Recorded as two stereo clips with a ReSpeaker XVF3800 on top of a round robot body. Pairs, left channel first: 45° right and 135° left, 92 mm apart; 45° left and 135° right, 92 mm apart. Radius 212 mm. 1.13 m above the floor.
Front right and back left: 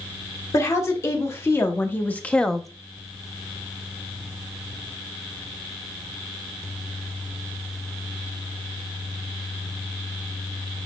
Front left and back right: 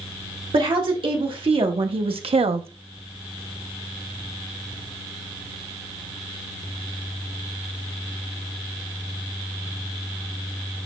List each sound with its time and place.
0.5 s a woman speaking: 105° right, 1.9 m; by 2.7 s 135° right, 0.6 m